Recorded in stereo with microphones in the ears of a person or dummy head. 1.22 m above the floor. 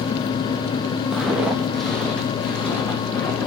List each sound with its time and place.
1.1 s footsteps: 5° right (ahead or behind), 2.5 m; by 3.5 s 10° left (ahead or behind), 4.5 m